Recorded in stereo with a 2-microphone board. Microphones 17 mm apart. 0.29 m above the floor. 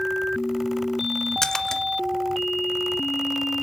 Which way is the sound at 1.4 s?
30° left (ahead or behind).